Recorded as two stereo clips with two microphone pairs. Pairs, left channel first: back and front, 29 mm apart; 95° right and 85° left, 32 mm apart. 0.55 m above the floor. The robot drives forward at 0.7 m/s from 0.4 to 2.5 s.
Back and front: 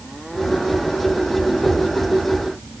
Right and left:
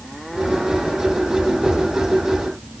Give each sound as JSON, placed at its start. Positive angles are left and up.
{"t": 1.6, "sound": "knocking", "azimuth_deg": -135, "distance_m": 3.5}